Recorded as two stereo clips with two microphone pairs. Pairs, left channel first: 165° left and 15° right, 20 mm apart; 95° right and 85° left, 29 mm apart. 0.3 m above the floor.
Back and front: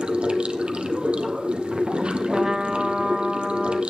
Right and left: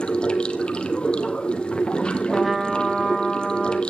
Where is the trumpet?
Straight ahead, 0.8 m.